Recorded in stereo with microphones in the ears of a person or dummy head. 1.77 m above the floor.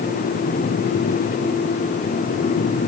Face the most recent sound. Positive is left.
No sound to turn to.